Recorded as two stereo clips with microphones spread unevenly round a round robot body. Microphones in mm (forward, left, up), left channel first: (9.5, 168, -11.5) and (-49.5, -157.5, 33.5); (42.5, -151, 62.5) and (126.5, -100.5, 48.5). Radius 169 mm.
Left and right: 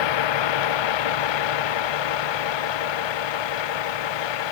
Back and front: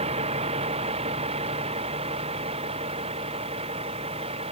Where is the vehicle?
70° left; by 4.5 s 80° left.